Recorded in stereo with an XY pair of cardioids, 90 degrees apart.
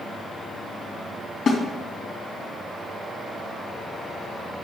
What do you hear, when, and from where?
1.5 s a snare drum: 60° left, 3.5 m